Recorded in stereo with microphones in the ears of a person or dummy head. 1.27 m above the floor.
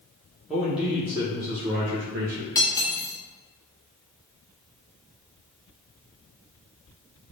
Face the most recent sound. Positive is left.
turn(degrees=20)  # may be behind; listen again after turning